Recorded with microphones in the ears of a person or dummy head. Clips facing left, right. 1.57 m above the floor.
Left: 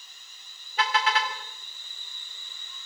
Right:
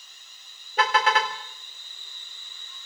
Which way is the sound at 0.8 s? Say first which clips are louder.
Right 4 dB; 45° right (ahead or behind).